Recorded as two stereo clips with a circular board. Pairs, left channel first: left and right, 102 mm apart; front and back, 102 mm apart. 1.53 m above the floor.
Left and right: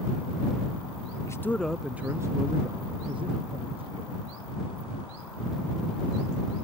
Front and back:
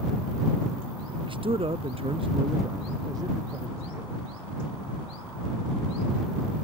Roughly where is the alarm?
I don't hear an alarm.